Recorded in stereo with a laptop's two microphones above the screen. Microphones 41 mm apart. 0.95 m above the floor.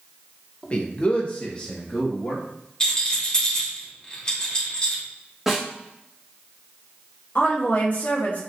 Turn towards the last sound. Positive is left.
turn(degrees=40)  # may be behind; listen again after turning